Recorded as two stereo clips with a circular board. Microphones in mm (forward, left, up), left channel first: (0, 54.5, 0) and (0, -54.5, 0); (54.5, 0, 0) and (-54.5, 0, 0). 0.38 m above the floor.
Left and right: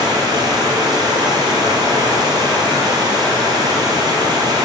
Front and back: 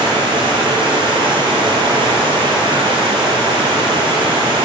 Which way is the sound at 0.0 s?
140° right.